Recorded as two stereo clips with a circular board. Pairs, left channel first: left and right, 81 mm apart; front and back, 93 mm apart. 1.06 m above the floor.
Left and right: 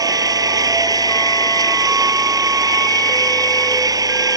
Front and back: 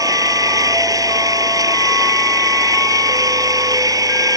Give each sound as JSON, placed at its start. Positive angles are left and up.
{"t": 0.0, "sound": "an engine running", "azimuth_deg": -130}